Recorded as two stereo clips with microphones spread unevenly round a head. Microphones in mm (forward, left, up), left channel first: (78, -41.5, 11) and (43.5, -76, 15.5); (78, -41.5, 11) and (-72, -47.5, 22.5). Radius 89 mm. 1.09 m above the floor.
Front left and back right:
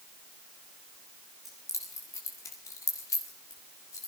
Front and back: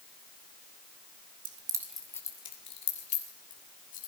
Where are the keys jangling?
140° left, 0.8 m; by 4.1 s 50° left, 3.5 m.